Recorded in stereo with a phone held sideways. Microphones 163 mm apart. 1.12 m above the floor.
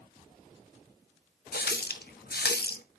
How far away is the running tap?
About 0.5 m.